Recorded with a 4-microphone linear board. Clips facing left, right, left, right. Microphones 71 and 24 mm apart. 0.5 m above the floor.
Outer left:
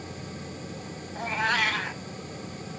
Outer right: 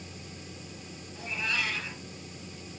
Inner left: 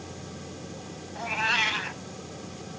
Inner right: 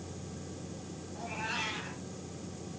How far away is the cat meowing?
About 1.2 m.